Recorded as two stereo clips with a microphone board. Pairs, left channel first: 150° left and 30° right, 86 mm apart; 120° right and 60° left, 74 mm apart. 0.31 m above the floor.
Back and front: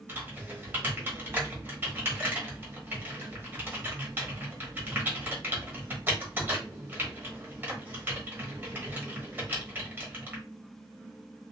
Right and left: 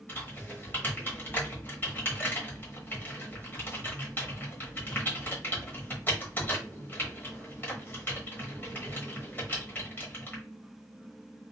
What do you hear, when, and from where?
0.1 s typing on a keyboard: 80° right, 1.0 m